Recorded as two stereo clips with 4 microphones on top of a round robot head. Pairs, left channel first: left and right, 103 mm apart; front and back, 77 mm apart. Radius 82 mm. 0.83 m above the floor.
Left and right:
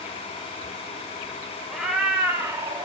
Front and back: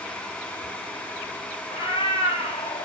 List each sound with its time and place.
1.7 s a cat meowing: straight ahead, 1.3 m; by 2.9 s 45° right, 1.2 m